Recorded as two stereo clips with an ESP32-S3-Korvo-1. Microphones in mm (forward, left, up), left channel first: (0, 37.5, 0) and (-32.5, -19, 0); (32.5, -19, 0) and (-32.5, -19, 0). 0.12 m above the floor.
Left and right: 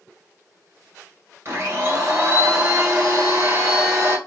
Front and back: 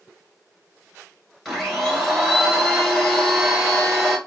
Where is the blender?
90° right, 1.2 m.